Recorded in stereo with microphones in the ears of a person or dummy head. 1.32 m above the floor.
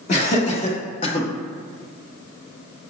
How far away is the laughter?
About 1.8 m.